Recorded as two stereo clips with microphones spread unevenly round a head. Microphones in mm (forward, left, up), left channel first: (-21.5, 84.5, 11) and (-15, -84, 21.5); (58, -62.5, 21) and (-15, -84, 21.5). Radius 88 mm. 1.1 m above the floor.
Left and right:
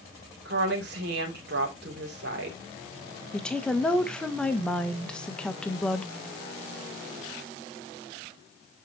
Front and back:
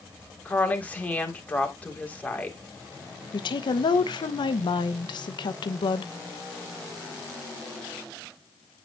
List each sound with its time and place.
0.5 s a woman speaking: 55° right, 3 m
3.3 s a woman speaking: 10° left, 1.0 m